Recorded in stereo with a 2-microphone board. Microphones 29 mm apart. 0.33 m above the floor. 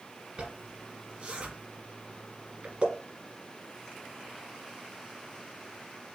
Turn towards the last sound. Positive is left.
turn(degrees=-50)  # may be behind; listen again after turning